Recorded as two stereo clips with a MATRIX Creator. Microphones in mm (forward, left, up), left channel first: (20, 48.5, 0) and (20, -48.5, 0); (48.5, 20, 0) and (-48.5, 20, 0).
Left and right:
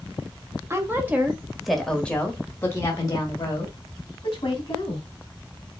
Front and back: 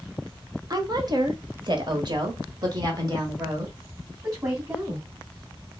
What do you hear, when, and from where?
0.7 s a woman speaking: 145° right, 1.2 m; by 5.0 s 120° left, 2.5 m